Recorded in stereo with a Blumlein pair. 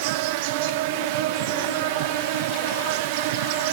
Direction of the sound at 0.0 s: 50° right.